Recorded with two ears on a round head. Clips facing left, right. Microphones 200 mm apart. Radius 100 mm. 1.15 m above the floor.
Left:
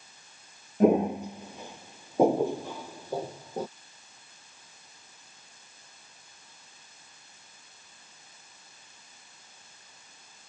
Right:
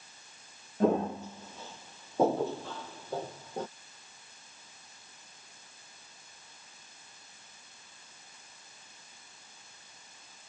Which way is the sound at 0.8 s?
15° left (ahead or behind).